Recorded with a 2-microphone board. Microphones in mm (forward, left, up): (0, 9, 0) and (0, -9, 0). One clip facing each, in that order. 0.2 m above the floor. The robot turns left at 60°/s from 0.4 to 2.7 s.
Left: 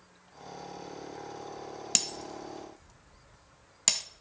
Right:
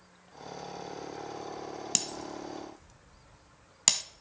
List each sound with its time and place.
1.9 s breaking glass: 15° left (ahead or behind), 0.8 m; by 4.0 s 10° right (ahead or behind), 0.8 m